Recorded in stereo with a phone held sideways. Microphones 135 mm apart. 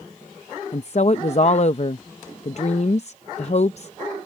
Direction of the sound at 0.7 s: 50° left (ahead or behind).